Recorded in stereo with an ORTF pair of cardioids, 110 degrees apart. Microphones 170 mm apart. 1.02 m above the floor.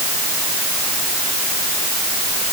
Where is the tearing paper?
I don't hear tearing paper.